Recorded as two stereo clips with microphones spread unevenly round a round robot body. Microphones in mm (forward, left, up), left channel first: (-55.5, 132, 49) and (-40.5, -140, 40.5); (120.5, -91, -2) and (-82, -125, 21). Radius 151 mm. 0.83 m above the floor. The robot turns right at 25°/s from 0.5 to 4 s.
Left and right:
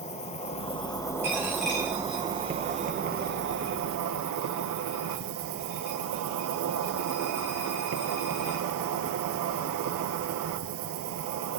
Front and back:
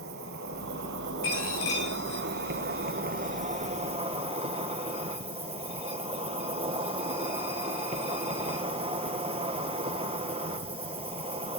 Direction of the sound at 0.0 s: 155° left.